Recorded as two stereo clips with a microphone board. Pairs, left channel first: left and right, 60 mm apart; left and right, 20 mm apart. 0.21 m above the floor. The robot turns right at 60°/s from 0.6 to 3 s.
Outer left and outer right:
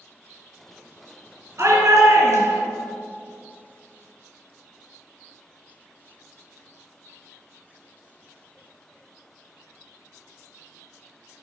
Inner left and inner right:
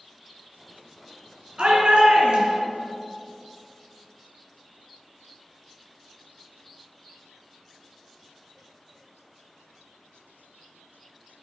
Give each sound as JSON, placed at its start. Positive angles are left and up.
{"t": 1.6, "sound": "a shout", "azimuth_deg": -120, "distance_m": 2.5}